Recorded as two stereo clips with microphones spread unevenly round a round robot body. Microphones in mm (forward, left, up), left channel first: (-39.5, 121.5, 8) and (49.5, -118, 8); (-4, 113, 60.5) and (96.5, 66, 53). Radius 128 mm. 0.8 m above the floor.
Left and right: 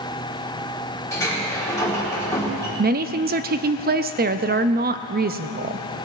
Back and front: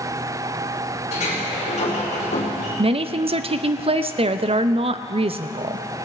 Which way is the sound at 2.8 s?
20° right.